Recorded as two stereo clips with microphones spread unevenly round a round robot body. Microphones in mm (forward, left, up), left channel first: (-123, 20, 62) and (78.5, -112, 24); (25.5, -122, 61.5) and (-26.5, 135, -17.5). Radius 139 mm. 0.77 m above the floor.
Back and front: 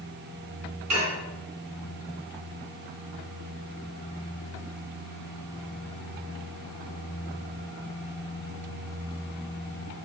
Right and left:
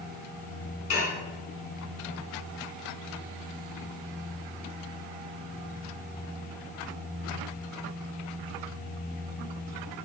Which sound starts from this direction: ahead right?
Dishes clattering, at 0.9 s.